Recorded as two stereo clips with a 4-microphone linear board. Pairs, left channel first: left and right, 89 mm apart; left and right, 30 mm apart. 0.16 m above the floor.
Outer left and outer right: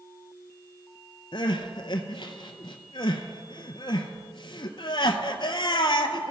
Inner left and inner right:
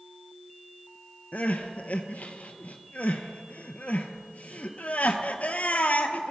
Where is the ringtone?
No ringtone in this recording.